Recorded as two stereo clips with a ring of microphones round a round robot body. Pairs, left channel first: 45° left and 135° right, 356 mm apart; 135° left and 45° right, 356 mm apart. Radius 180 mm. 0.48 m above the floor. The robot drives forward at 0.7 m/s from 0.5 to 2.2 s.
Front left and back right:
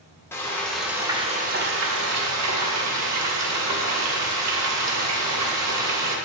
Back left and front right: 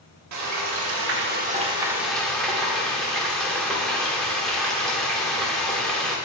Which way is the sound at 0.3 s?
35° right.